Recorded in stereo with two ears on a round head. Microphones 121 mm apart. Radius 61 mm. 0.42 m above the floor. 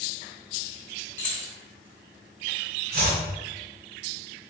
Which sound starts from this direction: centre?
Keys jangling, at 1.2 s.